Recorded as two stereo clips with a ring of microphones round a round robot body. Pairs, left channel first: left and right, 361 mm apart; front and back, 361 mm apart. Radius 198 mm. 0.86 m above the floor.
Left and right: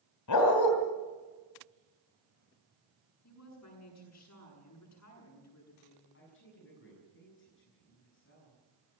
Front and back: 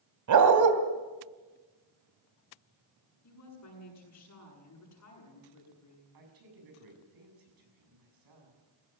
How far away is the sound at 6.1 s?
About 7.5 m.